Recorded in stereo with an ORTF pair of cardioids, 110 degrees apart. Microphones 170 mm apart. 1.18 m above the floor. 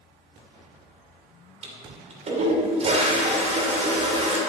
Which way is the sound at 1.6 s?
40° right.